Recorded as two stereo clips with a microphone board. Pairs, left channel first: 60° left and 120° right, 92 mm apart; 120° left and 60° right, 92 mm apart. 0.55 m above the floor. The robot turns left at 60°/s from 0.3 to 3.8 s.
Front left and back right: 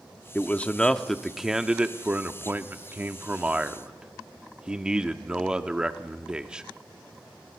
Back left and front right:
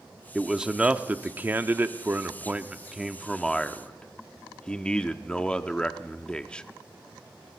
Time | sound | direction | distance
0.3 | a man speaking | 25° left | 0.8 m